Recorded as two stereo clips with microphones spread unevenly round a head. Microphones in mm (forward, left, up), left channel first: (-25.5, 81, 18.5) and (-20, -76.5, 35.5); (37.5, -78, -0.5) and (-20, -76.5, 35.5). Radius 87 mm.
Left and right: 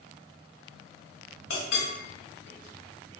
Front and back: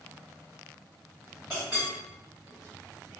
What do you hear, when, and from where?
1.5 s a clink: 85° left, 1.4 m